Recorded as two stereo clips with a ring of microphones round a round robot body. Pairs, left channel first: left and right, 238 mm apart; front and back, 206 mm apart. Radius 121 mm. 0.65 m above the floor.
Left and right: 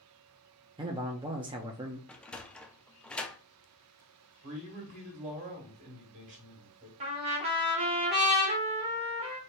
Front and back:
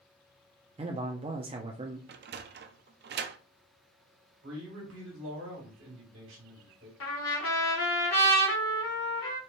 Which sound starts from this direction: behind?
A sliding door, at 2.1 s.